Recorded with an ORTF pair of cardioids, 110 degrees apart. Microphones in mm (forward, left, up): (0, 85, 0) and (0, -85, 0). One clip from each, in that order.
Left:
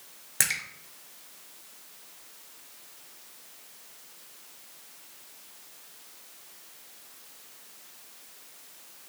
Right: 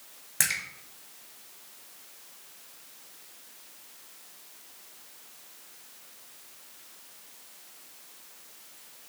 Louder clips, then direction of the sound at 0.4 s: Even; 10° left.